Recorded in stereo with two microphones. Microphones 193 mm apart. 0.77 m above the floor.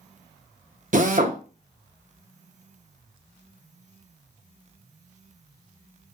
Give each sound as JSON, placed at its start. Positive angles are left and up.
{"t": 0.9, "sound": "a drill", "side_deg": -40, "distance_m": 0.5}